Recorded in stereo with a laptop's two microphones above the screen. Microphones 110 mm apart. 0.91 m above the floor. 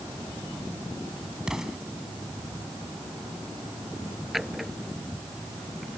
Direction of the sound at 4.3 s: Centre (ahead or behind).